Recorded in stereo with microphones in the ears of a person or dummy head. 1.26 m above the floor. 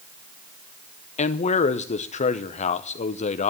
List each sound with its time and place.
1.2 s a man speaking: 35° left (ahead or behind), 0.7 m